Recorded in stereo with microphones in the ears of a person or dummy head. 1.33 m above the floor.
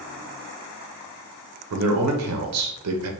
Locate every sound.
1.7 s a man speaking: 70° right (ahead or behind), 0.7 m